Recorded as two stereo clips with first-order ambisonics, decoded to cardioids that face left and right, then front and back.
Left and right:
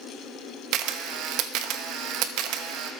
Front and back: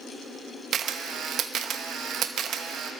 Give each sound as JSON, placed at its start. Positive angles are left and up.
{"t": 0.7, "sound": "a camera shutter", "azimuth_deg": -125, "distance_m": 0.7}